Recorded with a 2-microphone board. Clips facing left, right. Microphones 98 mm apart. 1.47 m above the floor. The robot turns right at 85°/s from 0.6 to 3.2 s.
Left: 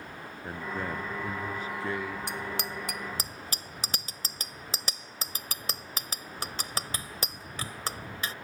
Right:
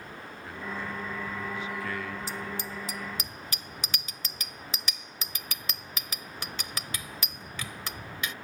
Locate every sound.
0.4 s a man speaking: 45° left; by 2.2 s 175° left
2.3 s a bicycle bell: 65° left (ahead or behind); by 8.3 s 35° left (ahead or behind)